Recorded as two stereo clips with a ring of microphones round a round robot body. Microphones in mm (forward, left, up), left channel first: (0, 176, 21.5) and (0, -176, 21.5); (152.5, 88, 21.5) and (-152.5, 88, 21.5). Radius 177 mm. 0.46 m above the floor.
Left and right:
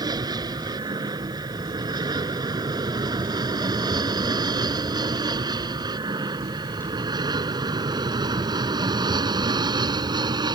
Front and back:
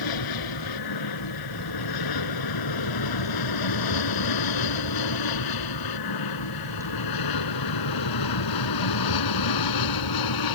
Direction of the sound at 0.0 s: 10° right.